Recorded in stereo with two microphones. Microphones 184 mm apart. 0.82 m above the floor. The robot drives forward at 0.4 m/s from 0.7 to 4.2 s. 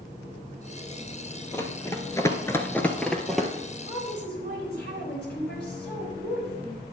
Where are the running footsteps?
15° left (ahead or behind), 1.4 m; by 3.5 s centre (ahead or behind), 1.4 m.